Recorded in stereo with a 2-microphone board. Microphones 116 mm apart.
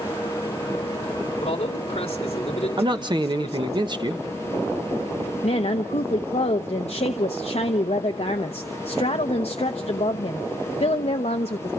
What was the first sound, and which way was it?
A man speaking, 55° left (ahead or behind).